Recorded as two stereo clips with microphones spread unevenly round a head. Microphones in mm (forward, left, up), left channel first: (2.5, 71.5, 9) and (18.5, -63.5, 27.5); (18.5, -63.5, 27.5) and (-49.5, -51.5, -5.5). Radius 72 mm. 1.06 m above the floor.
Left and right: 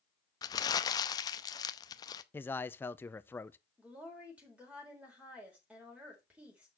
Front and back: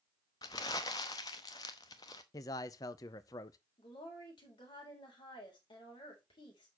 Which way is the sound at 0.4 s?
35° left.